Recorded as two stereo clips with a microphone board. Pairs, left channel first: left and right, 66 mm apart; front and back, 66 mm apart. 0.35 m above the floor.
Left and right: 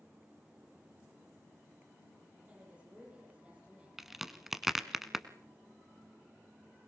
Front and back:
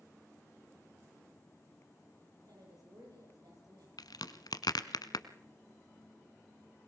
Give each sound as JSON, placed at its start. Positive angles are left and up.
{"t": 2.4, "sound": "a woman speaking", "azimuth_deg": -160, "distance_m": 8.0}
{"t": 4.0, "sound": "a crack", "azimuth_deg": -5, "distance_m": 1.3}